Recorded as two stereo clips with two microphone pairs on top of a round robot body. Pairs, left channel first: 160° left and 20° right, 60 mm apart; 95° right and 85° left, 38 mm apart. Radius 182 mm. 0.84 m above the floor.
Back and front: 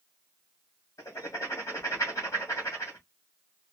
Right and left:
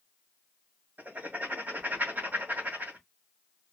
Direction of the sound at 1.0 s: 130° left.